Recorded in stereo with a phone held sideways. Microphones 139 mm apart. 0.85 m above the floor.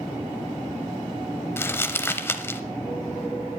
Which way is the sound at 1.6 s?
15° left (ahead or behind).